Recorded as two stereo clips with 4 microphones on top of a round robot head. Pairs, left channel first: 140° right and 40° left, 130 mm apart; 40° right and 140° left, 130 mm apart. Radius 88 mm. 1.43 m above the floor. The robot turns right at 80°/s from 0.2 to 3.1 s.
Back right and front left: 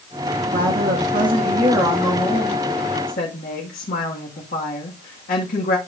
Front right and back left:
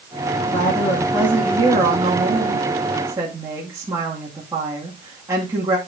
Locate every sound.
0.5 s a woman speaking: 5° left, 2 m; by 5.8 s 150° right, 2 m